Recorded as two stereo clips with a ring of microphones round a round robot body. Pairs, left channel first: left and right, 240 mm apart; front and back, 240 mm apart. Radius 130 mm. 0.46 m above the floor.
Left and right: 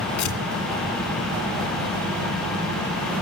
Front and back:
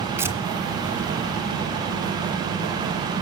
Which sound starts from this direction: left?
Tearing paper, at 0.2 s.